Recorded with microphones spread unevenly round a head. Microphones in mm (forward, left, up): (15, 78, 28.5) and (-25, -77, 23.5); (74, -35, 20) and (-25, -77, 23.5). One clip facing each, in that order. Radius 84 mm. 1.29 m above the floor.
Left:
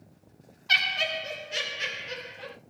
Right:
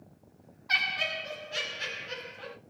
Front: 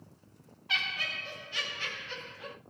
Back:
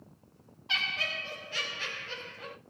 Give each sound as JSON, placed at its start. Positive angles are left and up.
{"t": 0.7, "sound": "laughter", "azimuth_deg": 130, "distance_m": 0.5}